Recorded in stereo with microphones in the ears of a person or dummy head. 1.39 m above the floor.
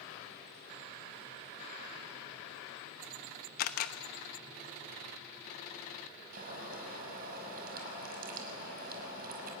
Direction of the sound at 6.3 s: 50° right (ahead or behind).